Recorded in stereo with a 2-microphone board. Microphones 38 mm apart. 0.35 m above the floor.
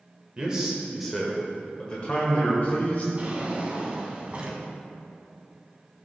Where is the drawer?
30° right (ahead or behind), 1.2 m.